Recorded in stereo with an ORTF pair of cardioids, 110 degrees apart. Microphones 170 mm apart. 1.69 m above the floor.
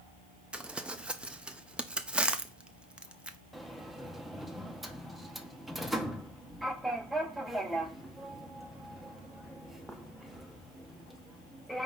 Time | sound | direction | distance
0.5 | crumpling | 5° right | 0.6 m
3.5 | a sliding door | straight ahead | 0.8 m